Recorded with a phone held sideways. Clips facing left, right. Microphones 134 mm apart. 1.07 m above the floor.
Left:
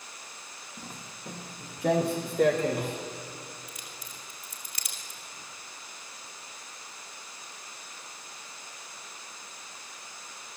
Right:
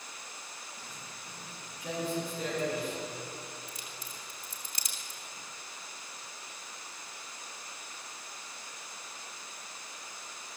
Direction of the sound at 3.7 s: 35° right (ahead or behind).